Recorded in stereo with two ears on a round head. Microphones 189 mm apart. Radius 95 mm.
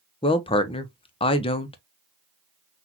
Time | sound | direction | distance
0.2 | a woman speaking | 25° left (ahead or behind) | 0.8 m